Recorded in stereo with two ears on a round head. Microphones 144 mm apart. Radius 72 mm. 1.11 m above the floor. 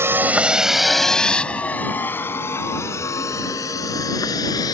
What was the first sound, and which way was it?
A vehicle, 15° right (ahead or behind).